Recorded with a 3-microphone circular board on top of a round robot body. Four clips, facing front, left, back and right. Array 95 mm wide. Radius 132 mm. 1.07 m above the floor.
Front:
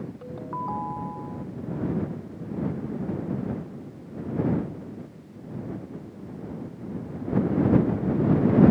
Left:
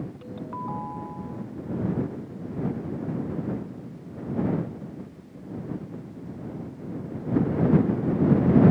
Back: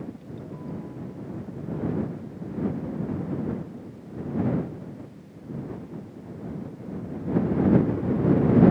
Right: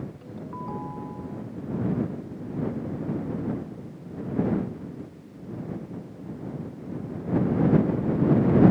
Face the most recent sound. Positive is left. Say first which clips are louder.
# left 4 dB, front 6 dB
turn(degrees=20)